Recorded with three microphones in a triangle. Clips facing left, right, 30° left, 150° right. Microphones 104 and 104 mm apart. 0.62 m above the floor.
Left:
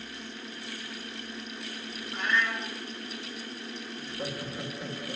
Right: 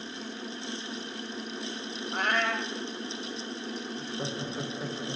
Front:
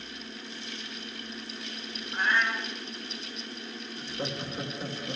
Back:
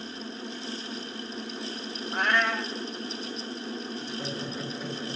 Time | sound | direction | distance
2.1 | a cat meowing | 125° right | 1.0 m
4.0 | laughter | 35° right | 1.9 m